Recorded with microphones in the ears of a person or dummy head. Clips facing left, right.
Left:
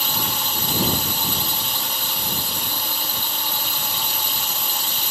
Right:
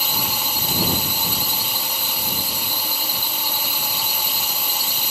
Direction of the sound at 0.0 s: Centre (ahead or behind).